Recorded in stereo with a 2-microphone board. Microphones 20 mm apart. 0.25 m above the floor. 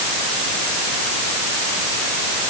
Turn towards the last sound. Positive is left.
No sound to turn to.